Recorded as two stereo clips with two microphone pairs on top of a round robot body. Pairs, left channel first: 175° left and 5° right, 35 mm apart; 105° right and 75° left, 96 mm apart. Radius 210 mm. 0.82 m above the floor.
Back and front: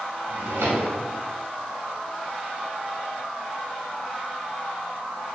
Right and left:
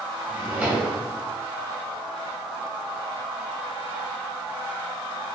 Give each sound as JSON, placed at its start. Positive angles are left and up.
{"t": 0.3, "sound": "a drawer", "azimuth_deg": -5, "distance_m": 3.0}